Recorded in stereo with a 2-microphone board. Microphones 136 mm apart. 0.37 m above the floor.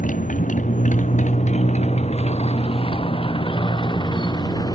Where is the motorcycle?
80° left; by 4.8 s 30° left (ahead or behind).